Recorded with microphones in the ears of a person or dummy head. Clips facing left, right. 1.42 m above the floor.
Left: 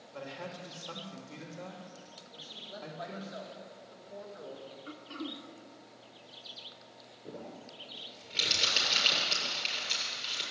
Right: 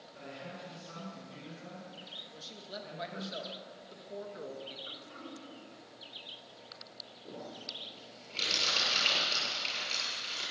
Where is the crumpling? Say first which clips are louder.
Left 1 dB; 25° left (ahead or behind), 7 m.